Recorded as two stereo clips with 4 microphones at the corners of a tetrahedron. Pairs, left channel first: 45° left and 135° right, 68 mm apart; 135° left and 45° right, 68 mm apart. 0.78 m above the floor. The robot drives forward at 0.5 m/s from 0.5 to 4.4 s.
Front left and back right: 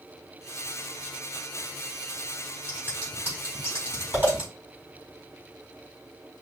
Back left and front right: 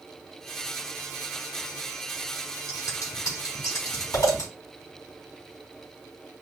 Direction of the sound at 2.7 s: 170° left.